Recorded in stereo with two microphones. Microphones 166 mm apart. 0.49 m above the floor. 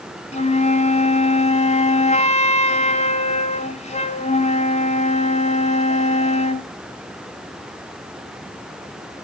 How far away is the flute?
About 1.2 m.